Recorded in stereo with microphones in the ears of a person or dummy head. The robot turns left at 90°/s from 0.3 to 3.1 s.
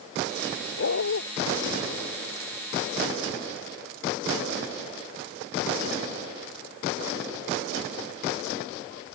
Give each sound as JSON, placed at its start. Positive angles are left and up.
{"t": 0.8, "sound": "a dog barking", "azimuth_deg": 110}